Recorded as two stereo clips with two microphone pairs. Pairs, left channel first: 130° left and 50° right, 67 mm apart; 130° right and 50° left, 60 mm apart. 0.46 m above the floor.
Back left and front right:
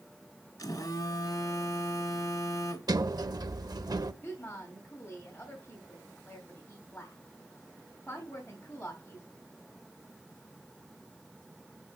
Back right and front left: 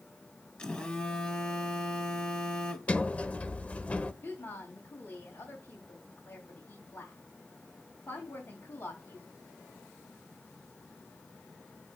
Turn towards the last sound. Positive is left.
turn(degrees=-165)